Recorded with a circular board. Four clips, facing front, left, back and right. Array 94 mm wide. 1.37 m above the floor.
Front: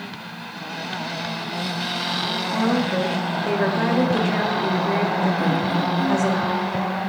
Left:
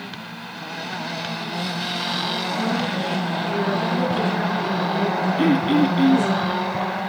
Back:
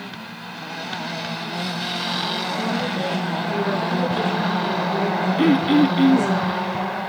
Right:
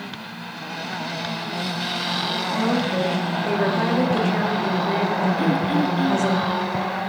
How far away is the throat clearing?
About 0.6 m.